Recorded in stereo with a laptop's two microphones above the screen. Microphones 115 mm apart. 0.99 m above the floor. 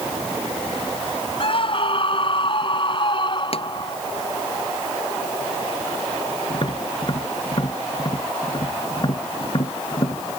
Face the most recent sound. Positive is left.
turn(degrees=40)  # may be behind; listen again after turning